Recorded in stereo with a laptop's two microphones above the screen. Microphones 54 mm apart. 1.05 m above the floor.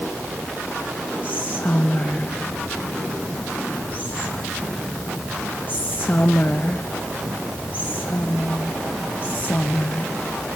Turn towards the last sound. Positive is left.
turn(degrees=35)  # may be behind; listen again after turning